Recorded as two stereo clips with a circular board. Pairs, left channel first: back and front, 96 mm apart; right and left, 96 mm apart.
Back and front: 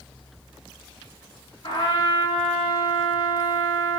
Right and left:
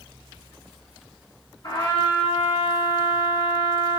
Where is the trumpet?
135° right, 4.5 m.